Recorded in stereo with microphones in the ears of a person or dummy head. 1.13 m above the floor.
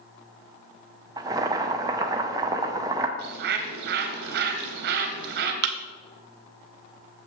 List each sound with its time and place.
1.2 s boiling: 20° right (ahead or behind), 0.6 m
3.2 s a bird: 50° right (ahead or behind), 1.0 m
5.6 s a thud: 45° right (ahead or behind), 0.6 m